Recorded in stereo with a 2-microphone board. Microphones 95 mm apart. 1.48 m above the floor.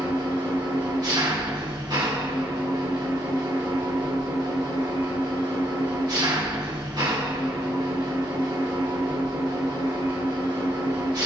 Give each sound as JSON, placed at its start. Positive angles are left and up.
{"t": 0.0, "sound": "an engine running", "side_deg": -45, "distance_m": 1.4}